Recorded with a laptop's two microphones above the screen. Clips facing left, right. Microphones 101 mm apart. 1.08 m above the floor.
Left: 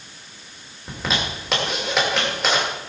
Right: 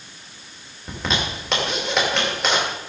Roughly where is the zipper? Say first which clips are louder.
Even; centre.